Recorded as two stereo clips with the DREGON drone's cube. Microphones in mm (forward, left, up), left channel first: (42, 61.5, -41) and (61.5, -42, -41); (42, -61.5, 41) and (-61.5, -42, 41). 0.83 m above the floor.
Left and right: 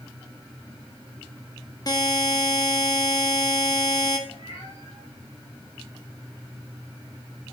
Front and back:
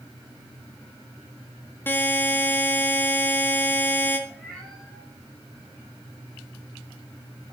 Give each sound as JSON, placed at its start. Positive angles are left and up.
{"t": 1.9, "sound": "a buzzer", "azimuth_deg": 55, "distance_m": 1.6}
{"t": 4.3, "sound": "a cat meowing", "azimuth_deg": 75, "distance_m": 5.0}